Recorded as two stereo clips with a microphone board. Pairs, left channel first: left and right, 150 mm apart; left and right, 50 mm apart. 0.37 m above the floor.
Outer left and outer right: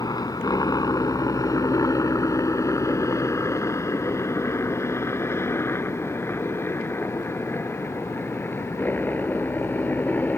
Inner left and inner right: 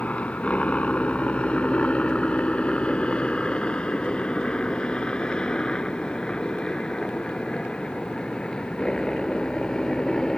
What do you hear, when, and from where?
0.0 s a helicopter: 25° left (ahead or behind); by 10.4 s 10° left (ahead or behind)